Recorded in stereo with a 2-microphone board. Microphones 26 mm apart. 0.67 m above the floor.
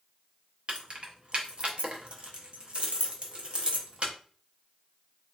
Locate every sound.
0.7 s keys jangling: 40° right (ahead or behind), 0.7 m